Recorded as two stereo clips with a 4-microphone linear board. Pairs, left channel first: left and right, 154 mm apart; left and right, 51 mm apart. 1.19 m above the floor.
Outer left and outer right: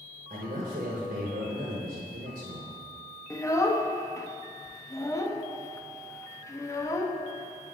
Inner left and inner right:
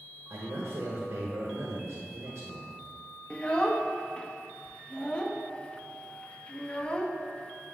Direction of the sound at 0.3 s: 75° right (ahead or behind).